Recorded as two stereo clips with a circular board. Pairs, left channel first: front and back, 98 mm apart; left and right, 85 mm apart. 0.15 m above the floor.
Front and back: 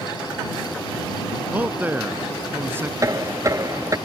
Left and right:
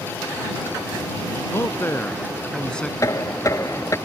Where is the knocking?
130° left.